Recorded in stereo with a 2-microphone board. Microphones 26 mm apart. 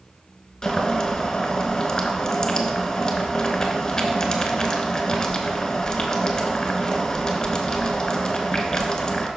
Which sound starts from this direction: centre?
Boiling, at 0.6 s.